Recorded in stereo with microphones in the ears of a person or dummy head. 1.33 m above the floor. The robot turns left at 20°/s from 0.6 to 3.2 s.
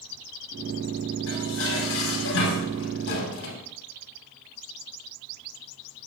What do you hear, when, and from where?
1.3 s dishes clattering: 100° left, 7 m; by 3.6 s 60° left, 7 m